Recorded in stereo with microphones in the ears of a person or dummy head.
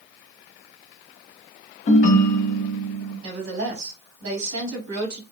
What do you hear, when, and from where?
1.9 s a ringtone: 45° left (ahead or behind), 0.8 m
3.2 s a woman speaking: 60° right (ahead or behind), 1.2 m